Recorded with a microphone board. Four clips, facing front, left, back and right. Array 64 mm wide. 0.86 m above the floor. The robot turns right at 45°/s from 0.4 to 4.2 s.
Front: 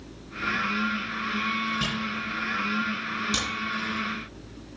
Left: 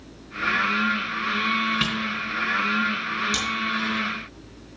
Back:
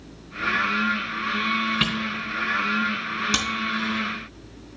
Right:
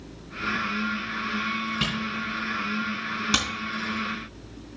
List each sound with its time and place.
1.8 s a camera shutter: 170° left, 3.5 m; by 3.5 s 115° right, 3.5 m